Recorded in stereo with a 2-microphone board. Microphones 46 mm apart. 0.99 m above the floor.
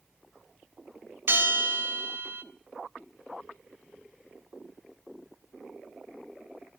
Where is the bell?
55° right (ahead or behind), 0.7 m.